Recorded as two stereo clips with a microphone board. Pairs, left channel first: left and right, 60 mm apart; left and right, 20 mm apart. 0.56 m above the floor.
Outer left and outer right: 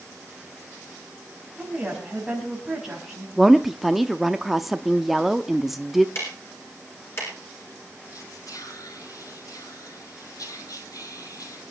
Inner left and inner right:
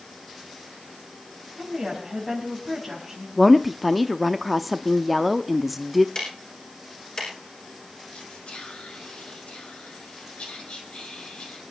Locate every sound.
1.6 s a woman speaking: 5° right (ahead or behind), 4.5 m
3.4 s a woman speaking: 5° right (ahead or behind), 0.6 m
6.2 s ticking: 45° left (ahead or behind), 5.5 m
8.1 s whispering: 70° left (ahead or behind), 3.5 m